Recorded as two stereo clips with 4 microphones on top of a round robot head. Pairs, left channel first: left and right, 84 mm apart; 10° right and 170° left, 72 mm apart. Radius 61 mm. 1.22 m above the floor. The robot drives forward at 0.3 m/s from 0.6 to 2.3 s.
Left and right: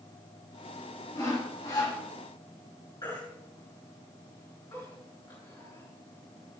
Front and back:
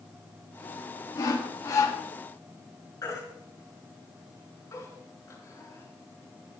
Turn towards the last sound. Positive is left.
turn(degrees=30)